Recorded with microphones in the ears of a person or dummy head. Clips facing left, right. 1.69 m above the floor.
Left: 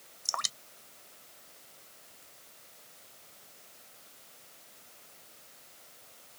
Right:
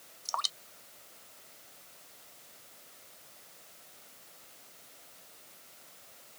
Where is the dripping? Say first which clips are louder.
Right 1 dB; 30° left (ahead or behind).